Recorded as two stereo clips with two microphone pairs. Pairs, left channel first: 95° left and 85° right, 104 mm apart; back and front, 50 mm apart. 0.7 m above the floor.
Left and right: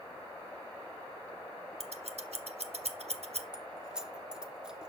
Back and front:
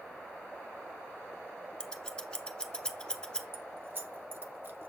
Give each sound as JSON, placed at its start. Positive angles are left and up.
{"t": 1.8, "sound": "scissors", "azimuth_deg": -105, "distance_m": 0.9}
{"t": 3.5, "sound": "keys jangling", "azimuth_deg": -5, "distance_m": 0.7}